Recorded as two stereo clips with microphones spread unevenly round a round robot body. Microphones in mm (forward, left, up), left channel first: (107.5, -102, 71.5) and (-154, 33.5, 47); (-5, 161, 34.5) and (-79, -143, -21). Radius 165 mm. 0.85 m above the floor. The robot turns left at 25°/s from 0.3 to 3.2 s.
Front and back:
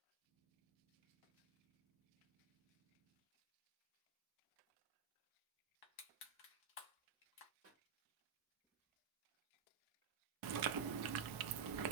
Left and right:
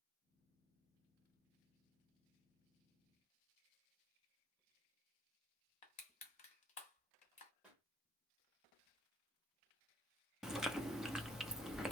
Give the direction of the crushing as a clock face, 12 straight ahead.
11 o'clock.